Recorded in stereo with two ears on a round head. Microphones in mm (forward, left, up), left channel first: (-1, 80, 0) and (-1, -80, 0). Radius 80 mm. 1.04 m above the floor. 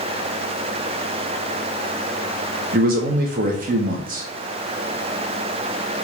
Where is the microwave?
I don't hear a microwave.